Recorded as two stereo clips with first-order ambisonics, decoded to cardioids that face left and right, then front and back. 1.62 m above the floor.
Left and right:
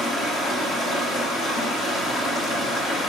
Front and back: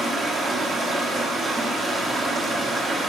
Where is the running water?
135° left, 1.1 m.